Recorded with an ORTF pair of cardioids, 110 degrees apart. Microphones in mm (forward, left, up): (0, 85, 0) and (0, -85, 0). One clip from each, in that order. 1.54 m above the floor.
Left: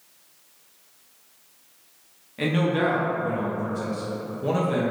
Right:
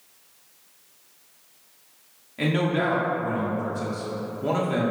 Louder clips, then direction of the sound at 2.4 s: Left 1 dB; straight ahead.